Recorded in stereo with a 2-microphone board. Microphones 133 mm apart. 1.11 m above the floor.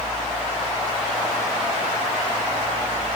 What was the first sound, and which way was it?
Only background noise.